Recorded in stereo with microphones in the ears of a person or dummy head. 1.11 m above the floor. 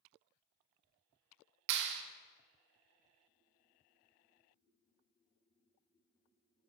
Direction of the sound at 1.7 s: 65° right (ahead or behind).